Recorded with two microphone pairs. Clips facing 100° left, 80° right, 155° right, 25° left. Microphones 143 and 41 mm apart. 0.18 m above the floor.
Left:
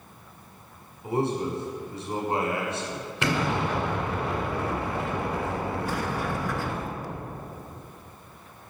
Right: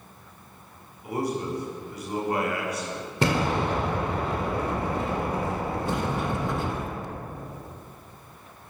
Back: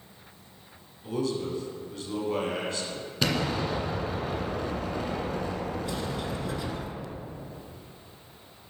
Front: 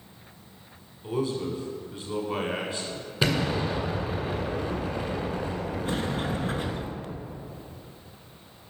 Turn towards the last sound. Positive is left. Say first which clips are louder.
# right 2 dB, front 3 dB
turn(degrees=-20)